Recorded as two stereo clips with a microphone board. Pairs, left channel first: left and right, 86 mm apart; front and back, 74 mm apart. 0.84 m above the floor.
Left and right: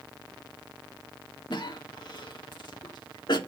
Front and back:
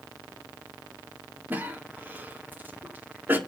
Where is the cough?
115° left, 2 m.